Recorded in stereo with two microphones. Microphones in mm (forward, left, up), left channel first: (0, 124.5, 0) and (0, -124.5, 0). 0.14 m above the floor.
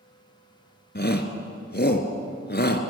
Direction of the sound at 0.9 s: 40° left (ahead or behind).